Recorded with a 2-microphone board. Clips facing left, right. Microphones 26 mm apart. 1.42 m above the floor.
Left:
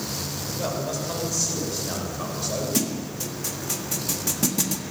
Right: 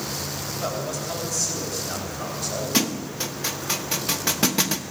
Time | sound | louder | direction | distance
0.6 | a man speaking | left 1 dB | 15° left (ahead or behind) | 6 m
2.7 | a thud | right 3 dB | 45° right (ahead or behind) | 1.1 m